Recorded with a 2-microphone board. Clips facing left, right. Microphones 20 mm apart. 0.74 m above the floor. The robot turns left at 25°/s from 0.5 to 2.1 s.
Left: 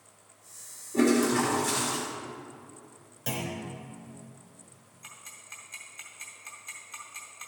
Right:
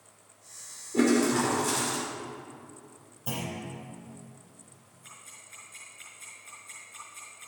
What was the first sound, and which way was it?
A toilet flushing, 20° right (ahead or behind).